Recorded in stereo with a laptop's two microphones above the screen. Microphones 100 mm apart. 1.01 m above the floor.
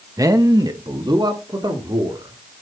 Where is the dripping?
I don't hear dripping.